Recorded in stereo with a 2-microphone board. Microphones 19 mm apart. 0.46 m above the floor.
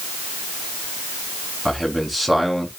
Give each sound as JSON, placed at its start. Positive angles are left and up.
{"t": 1.6, "sound": "a man speaking", "side_deg": -5, "distance_m": 4.5}